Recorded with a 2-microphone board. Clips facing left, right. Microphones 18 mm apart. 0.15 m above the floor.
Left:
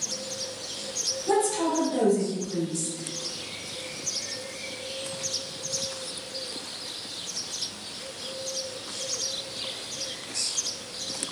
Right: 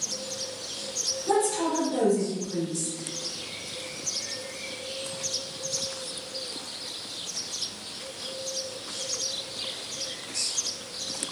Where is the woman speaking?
10° right (ahead or behind), 1.7 m.